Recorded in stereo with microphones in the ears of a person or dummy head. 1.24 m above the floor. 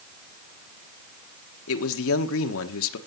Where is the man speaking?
70° left (ahead or behind), 1.3 m.